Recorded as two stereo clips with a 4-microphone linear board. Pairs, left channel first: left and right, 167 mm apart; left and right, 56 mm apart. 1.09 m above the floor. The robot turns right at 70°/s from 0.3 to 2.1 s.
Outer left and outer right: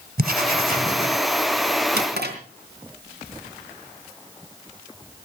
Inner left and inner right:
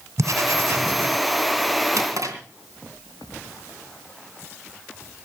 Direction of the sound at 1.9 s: 75° right (ahead or behind).